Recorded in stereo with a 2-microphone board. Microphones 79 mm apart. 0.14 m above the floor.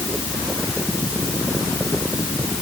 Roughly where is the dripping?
No dripping in this recording.